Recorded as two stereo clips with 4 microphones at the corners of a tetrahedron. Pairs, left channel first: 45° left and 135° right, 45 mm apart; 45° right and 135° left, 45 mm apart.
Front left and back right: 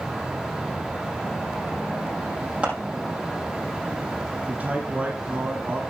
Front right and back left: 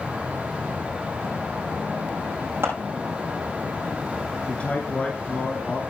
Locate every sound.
2.6 s scissors: 165° left, 5.5 m
4.5 s a man speaking: 90° right, 1.7 m